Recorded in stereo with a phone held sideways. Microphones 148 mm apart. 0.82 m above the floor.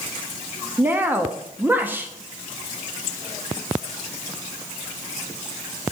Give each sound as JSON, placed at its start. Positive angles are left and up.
{"t": 0.8, "sound": "a woman speaking", "side_deg": -15, "distance_m": 0.9}